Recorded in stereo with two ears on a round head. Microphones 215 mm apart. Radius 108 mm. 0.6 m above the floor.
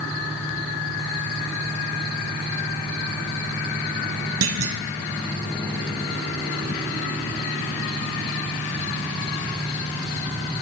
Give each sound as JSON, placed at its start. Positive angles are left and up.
{"t": 4.4, "sound": "a clunk", "side_deg": -60, "distance_m": 3.0}